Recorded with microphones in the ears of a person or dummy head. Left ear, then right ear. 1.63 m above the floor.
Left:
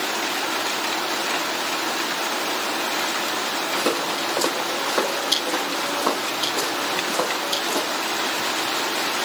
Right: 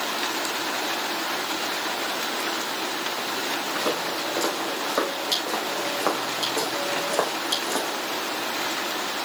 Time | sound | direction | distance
3.8 | footsteps | 5° left (ahead or behind) | 4 m